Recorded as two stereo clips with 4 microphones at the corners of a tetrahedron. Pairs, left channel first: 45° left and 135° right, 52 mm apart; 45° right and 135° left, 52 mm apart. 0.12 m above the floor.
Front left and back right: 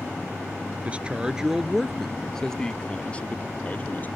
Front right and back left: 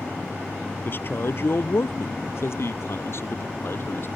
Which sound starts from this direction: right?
A man speaking, at 0.8 s.